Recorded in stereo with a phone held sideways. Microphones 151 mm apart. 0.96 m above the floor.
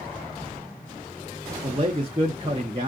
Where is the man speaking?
35° right (ahead or behind), 0.9 m.